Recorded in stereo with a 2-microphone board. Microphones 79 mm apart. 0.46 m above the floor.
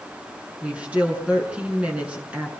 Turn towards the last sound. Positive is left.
turn(degrees=-15)  # may be behind; listen again after turning